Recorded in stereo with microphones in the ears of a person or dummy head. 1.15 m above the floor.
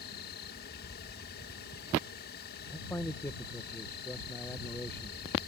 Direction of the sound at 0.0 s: 50° left (ahead or behind).